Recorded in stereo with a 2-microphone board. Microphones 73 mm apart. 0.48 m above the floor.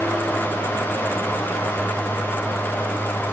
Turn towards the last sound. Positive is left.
No sound to turn to.